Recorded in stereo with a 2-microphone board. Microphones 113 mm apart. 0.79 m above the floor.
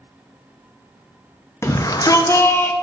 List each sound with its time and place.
1.6 s a shout: 25° left (ahead or behind), 0.6 m; by 2.7 s 15° left (ahead or behind), 1.1 m